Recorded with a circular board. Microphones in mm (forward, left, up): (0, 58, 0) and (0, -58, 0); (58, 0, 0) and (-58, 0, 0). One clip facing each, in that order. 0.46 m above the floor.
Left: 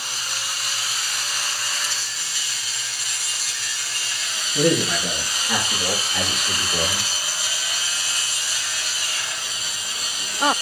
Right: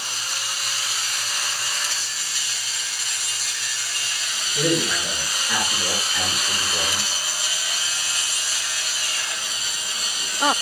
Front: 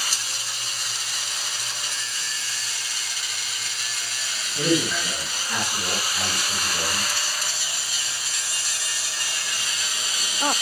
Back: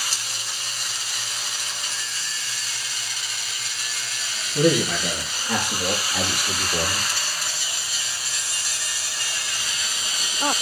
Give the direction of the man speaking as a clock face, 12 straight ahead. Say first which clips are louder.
Left 3 dB, back 3 dB; 7 o'clock.